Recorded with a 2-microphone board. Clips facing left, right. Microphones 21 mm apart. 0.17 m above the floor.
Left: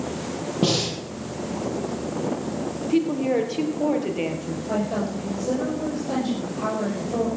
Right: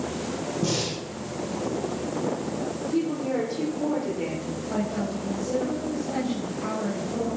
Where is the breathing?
70° left (ahead or behind), 3.5 m.